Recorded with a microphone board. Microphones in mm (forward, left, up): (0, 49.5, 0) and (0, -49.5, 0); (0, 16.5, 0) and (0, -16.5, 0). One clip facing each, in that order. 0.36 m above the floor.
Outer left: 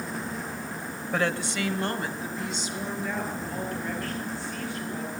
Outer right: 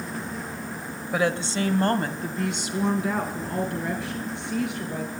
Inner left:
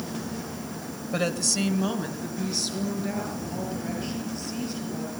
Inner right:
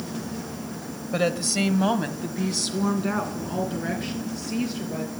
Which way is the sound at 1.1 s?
5° right (ahead or behind).